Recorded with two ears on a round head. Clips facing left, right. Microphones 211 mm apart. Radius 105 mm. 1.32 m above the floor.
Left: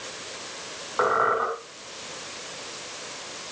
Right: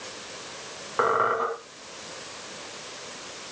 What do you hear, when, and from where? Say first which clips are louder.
1.0 s a squeak: left 1 dB; 40° right (ahead or behind), 4 m